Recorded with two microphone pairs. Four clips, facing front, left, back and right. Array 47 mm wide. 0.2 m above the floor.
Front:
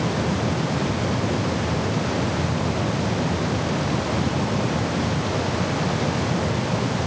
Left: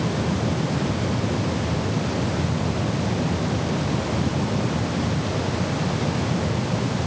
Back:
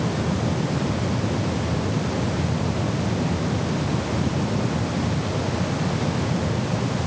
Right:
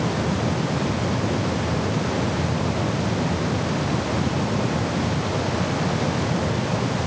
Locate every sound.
Only background noise.